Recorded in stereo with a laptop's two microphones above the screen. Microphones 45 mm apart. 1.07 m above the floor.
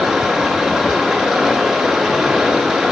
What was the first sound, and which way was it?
Running water, 5° right (ahead or behind).